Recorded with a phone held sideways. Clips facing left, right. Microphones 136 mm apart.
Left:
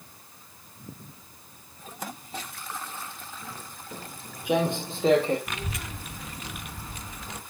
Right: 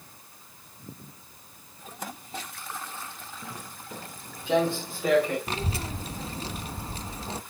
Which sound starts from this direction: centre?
Footsteps, at 3.4 s.